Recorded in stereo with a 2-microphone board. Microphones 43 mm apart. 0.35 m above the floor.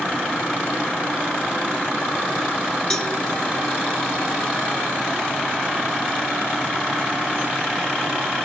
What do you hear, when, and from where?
2.9 s a cowbell: 20° left (ahead or behind), 3 m